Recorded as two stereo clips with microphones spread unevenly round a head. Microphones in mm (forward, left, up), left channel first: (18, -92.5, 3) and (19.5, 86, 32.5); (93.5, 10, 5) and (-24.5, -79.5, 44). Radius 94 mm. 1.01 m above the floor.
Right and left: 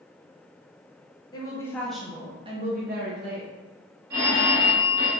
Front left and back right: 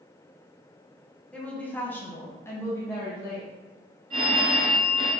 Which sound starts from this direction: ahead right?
A woman speaking, at 1.3 s.